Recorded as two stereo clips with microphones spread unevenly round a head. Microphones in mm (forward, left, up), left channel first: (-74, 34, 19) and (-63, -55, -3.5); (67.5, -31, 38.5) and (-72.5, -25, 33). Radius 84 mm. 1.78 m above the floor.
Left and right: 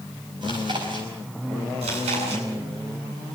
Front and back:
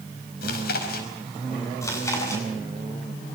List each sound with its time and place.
0.4 s chewing: 15° right, 5 m
1.8 s chewing: 70° right, 8 m